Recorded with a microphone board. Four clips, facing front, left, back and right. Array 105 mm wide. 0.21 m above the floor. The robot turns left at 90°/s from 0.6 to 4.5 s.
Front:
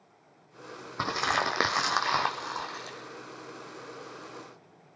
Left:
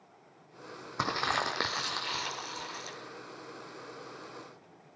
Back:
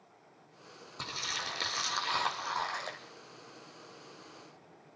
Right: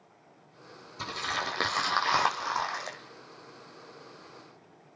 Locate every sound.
1.0 s crumpling: 55° left, 3 m; by 3.0 s 125° right, 3 m